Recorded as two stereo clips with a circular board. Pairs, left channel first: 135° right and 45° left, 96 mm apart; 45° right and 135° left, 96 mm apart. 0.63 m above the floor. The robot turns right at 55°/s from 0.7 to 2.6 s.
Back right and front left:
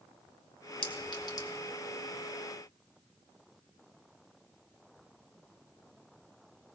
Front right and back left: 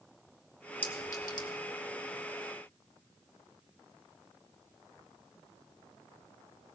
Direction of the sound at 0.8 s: 115° right.